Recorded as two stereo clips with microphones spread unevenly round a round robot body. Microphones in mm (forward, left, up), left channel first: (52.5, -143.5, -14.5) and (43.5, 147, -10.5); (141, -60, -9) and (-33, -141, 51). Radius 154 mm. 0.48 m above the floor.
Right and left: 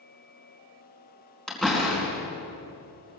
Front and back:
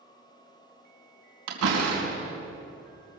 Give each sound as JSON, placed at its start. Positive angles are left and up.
{"t": 1.5, "sound": "a door slam", "azimuth_deg": -175, "distance_m": 4.5}